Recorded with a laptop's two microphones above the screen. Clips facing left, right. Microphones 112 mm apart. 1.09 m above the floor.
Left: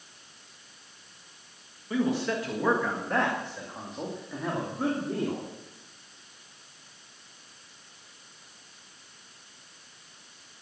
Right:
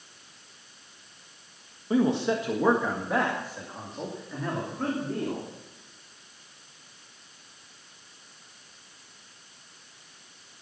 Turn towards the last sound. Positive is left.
turn(degrees=10)  # may be behind; listen again after turning